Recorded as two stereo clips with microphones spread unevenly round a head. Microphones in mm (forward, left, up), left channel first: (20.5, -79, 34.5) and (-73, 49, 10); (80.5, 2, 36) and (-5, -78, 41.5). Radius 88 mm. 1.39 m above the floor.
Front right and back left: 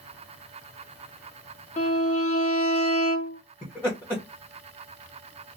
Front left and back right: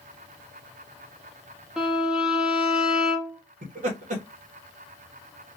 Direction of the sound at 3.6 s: 135° right.